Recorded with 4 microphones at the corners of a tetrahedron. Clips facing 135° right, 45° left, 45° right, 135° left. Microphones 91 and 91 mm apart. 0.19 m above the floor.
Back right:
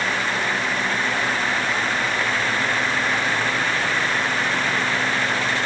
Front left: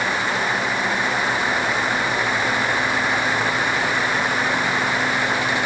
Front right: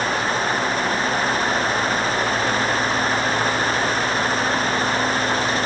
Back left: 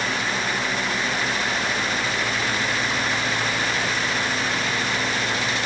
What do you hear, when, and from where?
Only background noise.